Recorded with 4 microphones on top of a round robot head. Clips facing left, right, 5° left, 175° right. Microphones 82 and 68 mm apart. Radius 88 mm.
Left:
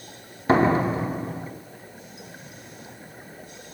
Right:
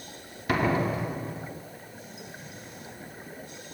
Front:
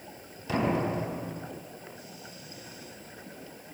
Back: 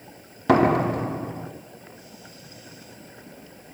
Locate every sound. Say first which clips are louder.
0.5 s a door slam: left 6 dB, back 9 dB; 155° left, 2 m